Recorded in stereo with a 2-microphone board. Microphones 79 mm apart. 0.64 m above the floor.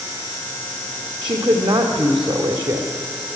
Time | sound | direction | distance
1.2 | a woman speaking | 75° right (ahead or behind) | 2.5 m